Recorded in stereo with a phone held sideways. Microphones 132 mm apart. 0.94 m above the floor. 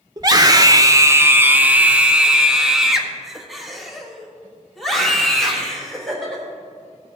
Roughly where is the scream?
Right.